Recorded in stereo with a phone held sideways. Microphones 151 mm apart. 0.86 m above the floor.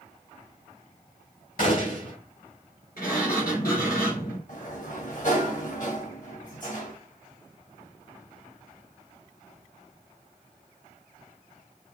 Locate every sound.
1.6 s a gunshot: 60° left (ahead or behind), 2.5 m
3.0 s a sliding door: 75° left (ahead or behind), 3.5 m
4.5 s a sliding door: 60° left (ahead or behind), 2.5 m